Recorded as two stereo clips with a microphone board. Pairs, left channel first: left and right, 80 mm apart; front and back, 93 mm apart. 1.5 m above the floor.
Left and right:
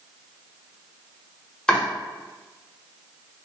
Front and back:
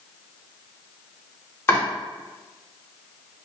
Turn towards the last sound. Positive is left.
turn(degrees=25)